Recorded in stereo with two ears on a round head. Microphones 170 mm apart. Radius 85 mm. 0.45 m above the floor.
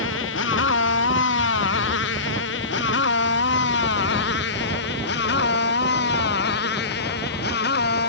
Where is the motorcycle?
65° left (ahead or behind); by 8.1 s 55° left (ahead or behind).